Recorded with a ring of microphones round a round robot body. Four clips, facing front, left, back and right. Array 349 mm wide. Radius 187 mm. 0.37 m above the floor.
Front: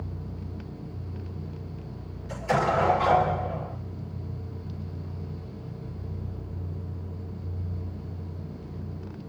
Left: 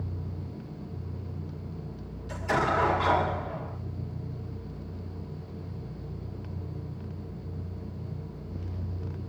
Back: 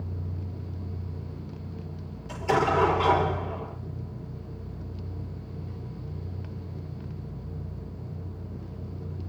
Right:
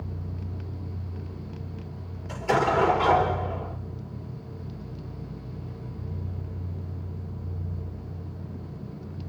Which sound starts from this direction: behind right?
An explosion, at 2.3 s.